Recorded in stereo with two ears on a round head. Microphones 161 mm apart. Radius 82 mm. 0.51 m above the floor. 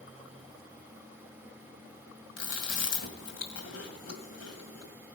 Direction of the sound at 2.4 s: 75° left (ahead or behind).